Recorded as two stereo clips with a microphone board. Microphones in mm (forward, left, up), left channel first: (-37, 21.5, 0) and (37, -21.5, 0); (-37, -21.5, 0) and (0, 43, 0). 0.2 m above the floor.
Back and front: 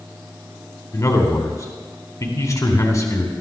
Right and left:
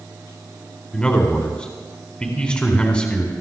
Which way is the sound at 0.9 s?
170° left.